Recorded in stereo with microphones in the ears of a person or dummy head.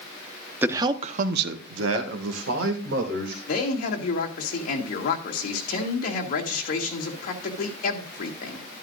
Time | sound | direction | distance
0.6 | a man speaking | 10° right (ahead or behind) | 1.1 m
3.5 | a man speaking | 55° left (ahead or behind) | 2.5 m